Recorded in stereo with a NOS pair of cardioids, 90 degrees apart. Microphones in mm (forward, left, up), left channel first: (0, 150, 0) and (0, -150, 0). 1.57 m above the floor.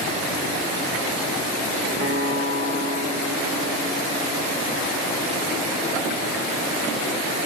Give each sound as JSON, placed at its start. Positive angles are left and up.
{"t": 2.0, "sound": "a guitar", "azimuth_deg": -40, "distance_m": 1.6}